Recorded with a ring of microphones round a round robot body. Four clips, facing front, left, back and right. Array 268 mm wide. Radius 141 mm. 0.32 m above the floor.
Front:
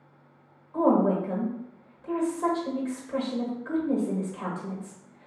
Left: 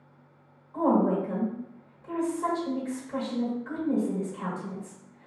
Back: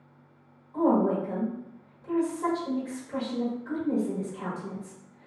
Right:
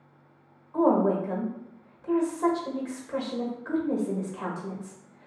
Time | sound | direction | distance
0.7 | a woman speaking | 70° right | 1.4 m